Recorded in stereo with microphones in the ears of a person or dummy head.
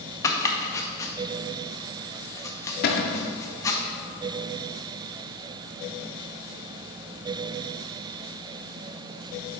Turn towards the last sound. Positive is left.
turn(degrees=50)  # may be behind; listen again after turning